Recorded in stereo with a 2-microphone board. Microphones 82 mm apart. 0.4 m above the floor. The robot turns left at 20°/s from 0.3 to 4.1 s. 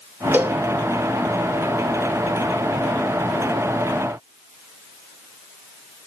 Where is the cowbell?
25° right (ahead or behind), 1.1 m; by 0.6 s 30° right (ahead or behind), 1.1 m.